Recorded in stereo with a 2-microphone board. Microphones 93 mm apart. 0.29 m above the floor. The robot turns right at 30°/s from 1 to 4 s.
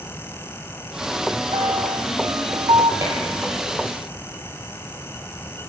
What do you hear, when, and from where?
1.5 s a piano: 115° right, 1.2 m; by 2.9 s 75° right, 1.2 m
3.0 s dishes clattering: 35° right (ahead or behind), 5 m; by 3.2 s 30° right (ahead or behind), 5 m